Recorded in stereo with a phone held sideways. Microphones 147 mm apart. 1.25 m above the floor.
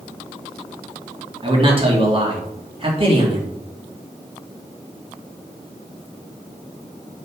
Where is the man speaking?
35° right (ahead or behind), 2.5 m.